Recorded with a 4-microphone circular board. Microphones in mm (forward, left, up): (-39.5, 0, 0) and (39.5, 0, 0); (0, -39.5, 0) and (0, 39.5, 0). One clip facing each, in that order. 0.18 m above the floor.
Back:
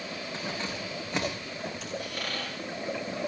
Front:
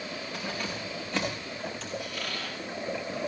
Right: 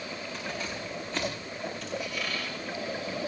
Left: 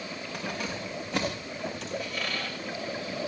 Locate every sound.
0.3 s keys jangling: 115° left, 9 m; by 1.9 s 100° left, 8 m
2.0 s a squeak: 140° left, 9 m